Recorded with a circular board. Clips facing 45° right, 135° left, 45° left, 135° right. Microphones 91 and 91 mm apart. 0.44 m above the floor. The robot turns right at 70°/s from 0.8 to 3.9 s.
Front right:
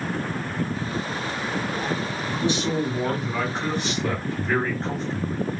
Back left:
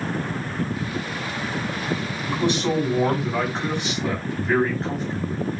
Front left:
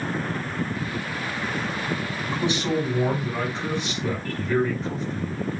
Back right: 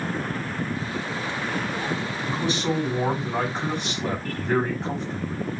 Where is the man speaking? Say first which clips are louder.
Back left 3 dB, front left 1 dB; 100° left, 3.5 m; by 5.4 s 145° right, 3.5 m.